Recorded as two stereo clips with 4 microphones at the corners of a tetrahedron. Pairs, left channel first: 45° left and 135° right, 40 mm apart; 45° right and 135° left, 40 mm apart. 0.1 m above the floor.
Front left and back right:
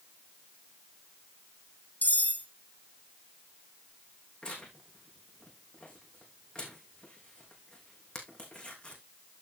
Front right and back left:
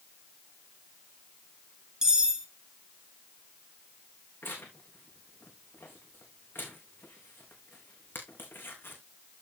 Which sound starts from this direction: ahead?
Tearing paper, at 4.4 s.